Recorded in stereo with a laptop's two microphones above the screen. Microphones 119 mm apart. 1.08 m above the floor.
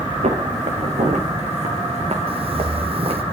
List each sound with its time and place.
0.2 s footsteps: 70° right (ahead or behind), 6 m; by 3.2 s 60° right (ahead or behind), 6 m
2.3 s footsteps: 55° right (ahead or behind), 1.9 m